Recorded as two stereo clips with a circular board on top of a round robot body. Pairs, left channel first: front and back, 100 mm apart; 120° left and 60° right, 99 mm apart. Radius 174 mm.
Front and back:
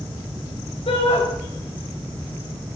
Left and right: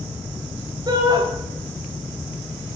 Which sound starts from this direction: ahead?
A shout, at 0.9 s.